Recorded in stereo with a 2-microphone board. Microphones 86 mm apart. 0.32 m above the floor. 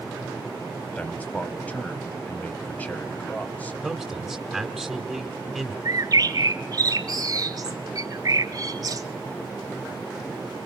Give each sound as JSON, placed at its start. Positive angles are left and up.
{"t": 0.9, "sound": "a man speaking", "side_deg": 15, "distance_m": 1.7}
{"t": 3.8, "sound": "a man speaking", "side_deg": 0, "distance_m": 1.6}
{"t": 5.8, "sound": "a bird", "side_deg": -45, "distance_m": 0.9}